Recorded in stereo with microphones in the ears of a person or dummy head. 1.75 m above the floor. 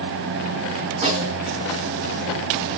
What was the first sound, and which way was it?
A snare drum, 30° right (ahead or behind).